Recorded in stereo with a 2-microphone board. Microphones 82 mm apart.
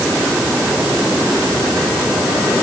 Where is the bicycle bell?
No bicycle bell in this recording.